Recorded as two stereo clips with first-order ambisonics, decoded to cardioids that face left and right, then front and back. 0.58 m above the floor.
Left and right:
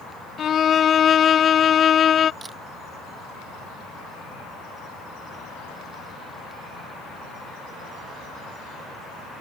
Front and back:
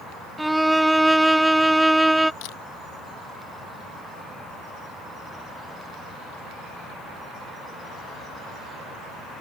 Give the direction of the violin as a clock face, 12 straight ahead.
9 o'clock.